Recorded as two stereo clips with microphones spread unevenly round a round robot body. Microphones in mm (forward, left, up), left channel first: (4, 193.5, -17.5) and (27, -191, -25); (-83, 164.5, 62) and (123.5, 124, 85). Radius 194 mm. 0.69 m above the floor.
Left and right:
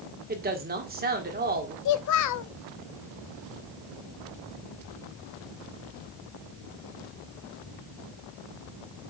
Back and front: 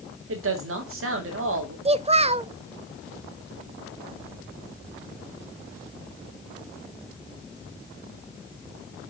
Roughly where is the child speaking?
Ahead left.